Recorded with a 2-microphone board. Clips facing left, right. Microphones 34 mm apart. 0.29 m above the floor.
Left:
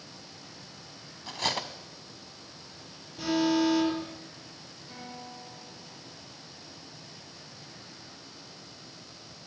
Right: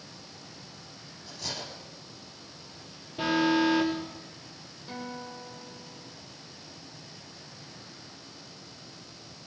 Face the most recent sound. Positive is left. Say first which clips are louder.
# right 5 dB
turn(degrees=-40)  # may be behind; listen again after turning